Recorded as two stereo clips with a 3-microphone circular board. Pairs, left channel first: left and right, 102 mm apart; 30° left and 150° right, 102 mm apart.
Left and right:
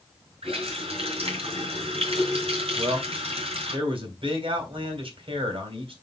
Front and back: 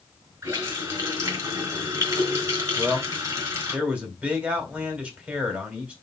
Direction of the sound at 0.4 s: 90° right.